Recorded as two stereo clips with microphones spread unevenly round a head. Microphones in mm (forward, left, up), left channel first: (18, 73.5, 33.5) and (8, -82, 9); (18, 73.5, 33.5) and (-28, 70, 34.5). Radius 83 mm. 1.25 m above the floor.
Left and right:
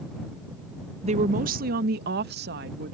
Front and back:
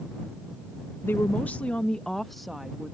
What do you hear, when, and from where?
1.0 s a woman speaking: 45° right; by 2.9 s 90° right